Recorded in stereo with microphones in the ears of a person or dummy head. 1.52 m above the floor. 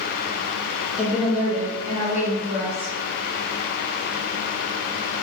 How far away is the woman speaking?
About 0.6 m.